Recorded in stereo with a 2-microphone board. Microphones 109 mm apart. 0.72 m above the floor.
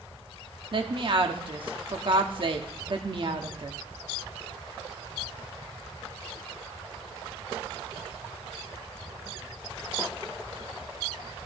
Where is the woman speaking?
50° right (ahead or behind), 1.1 m.